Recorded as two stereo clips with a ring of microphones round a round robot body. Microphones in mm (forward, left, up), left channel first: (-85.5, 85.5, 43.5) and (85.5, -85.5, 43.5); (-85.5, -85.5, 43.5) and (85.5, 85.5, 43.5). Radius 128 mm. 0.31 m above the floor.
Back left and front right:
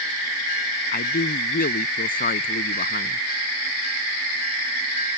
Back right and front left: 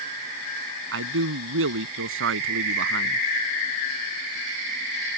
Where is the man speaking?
80° left.